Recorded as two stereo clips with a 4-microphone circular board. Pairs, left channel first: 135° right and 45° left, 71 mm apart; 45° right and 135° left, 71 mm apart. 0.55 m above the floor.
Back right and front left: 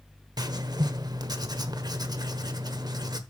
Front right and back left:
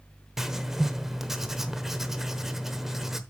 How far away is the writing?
About 1.1 m.